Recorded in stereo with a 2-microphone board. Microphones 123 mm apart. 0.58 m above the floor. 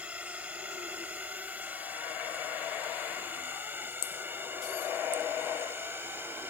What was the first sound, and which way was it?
A drone, 10° right (ahead or behind).